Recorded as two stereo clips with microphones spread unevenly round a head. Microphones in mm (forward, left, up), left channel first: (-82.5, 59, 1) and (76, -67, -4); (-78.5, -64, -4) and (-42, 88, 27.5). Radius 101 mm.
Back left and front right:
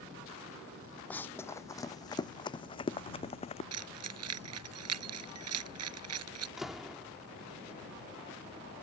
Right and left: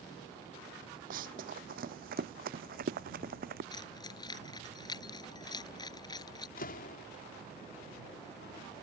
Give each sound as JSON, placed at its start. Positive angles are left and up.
{"t": 1.1, "sound": "running footsteps", "azimuth_deg": 60}
{"t": 3.7, "sound": "keys jangling", "azimuth_deg": -30}
{"t": 6.6, "sound": "a door slam", "azimuth_deg": -125}